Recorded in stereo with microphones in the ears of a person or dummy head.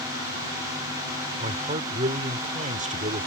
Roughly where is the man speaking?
Right.